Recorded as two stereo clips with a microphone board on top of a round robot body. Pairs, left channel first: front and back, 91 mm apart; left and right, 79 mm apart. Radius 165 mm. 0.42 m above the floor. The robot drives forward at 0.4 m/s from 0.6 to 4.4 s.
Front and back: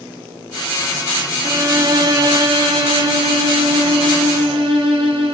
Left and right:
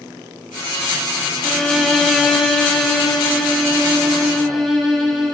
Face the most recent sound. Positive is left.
turn(degrees=180)